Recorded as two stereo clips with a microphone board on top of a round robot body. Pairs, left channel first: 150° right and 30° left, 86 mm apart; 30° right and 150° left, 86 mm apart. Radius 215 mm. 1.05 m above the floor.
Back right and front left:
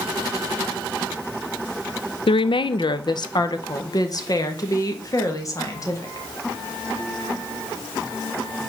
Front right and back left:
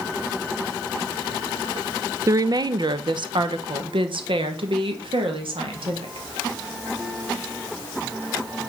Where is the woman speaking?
160° right, 0.6 m; by 6.3 s 160° left, 2.5 m.